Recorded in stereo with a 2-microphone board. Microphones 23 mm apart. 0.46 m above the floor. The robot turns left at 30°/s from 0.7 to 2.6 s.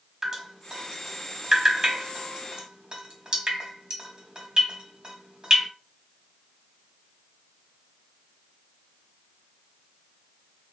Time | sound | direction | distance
0.2 | dripping | 25° right (ahead or behind) | 1.0 m